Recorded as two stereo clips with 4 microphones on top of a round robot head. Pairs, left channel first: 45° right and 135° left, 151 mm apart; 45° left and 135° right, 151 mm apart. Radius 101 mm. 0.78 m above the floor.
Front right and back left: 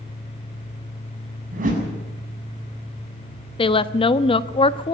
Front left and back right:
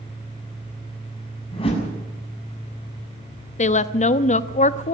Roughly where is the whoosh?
Left.